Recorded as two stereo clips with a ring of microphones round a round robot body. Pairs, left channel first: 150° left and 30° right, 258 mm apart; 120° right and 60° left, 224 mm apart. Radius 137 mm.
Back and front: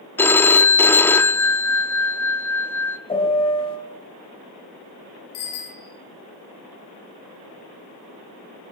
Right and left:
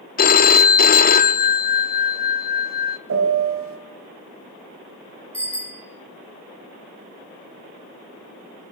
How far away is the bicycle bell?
About 8.5 m.